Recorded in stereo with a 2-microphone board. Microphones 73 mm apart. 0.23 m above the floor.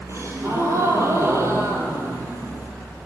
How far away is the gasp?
About 1.5 m.